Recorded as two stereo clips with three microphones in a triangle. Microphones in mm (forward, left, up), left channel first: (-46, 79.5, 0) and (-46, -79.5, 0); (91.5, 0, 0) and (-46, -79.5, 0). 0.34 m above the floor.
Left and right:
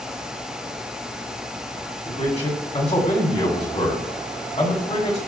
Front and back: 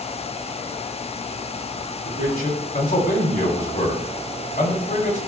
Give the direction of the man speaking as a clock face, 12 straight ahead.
10 o'clock.